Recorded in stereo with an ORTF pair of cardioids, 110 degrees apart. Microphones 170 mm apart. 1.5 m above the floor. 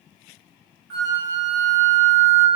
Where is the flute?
70° right, 1.1 m.